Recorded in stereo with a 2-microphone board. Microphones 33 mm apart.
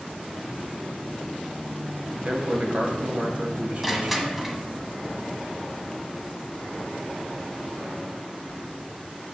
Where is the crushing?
5° right (ahead or behind), 0.9 m.